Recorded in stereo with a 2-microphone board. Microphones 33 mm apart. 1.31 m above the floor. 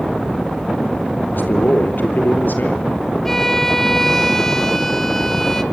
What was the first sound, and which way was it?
A man speaking, 65° left (ahead or behind).